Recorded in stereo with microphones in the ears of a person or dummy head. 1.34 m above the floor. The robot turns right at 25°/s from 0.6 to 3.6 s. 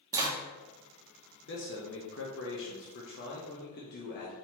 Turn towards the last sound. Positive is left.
turn(degrees=120)